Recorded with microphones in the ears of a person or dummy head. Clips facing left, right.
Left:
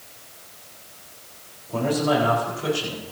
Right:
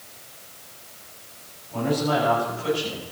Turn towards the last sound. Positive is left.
turn(degrees=80)